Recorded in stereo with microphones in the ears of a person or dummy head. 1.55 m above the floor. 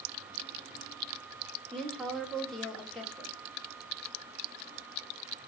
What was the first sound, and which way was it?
A woman speaking, 5° left (ahead or behind).